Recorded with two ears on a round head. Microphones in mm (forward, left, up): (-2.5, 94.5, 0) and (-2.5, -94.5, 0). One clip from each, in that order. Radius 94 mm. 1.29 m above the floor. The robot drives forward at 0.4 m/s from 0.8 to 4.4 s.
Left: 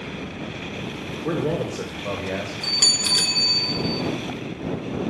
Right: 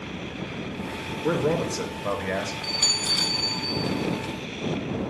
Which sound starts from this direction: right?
A man speaking, at 1.2 s.